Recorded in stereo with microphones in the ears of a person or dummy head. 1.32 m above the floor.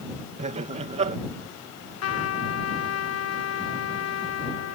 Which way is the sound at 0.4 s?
30° right (ahead or behind).